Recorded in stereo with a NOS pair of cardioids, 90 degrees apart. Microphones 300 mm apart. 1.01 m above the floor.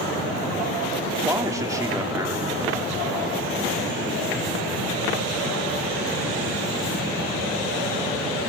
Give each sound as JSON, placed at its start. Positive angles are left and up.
{"t": 1.2, "sound": "a man speaking", "azimuth_deg": -10, "distance_m": 3.0}